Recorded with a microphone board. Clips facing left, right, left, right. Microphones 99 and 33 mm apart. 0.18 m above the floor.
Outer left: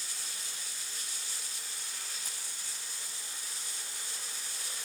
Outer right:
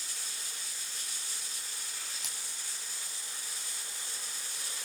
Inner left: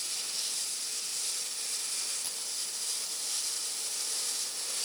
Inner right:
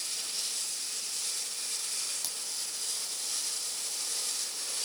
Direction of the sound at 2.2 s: 70° right (ahead or behind).